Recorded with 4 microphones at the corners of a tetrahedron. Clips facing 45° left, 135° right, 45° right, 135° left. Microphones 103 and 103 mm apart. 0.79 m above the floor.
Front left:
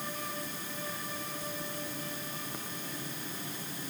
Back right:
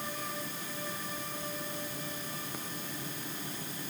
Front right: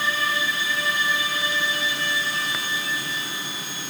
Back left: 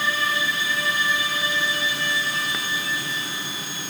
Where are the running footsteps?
No running footsteps in this recording.